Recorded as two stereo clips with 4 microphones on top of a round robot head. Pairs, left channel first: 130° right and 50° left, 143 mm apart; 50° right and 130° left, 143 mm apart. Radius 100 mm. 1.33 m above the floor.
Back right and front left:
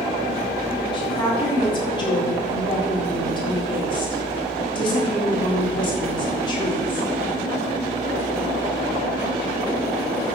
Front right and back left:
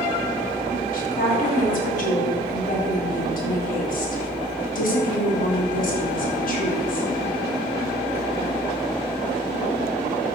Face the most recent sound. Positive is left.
turn(degrees=-75)